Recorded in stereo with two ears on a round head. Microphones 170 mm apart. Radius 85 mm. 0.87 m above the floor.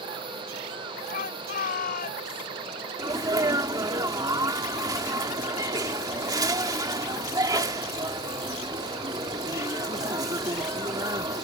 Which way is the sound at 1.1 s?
50° left (ahead or behind).